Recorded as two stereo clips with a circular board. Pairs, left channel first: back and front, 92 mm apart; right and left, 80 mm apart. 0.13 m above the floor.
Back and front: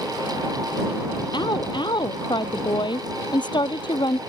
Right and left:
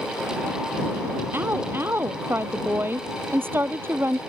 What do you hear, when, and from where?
1.3 s a woman speaking: 150° left